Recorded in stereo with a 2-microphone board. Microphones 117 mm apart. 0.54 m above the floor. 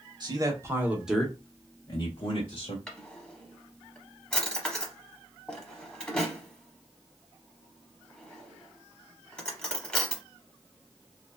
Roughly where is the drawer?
Centre.